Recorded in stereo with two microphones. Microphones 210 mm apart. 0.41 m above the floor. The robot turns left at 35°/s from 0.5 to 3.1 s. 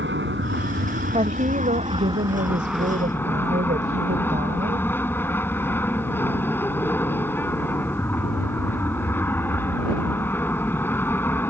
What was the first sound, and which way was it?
An aircraft, 100° right.